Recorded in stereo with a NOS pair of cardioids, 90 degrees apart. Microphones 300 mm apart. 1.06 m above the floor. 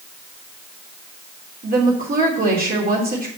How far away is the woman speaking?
About 2.5 m.